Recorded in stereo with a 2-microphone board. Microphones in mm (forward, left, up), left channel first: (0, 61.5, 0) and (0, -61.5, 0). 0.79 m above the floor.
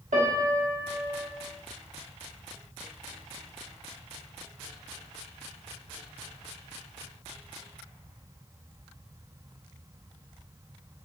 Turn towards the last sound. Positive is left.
turn(degrees=-85)